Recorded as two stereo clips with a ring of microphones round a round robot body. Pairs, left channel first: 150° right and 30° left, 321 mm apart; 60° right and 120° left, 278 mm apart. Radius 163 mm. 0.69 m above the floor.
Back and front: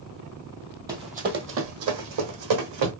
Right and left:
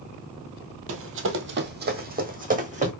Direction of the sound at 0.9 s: 105° left.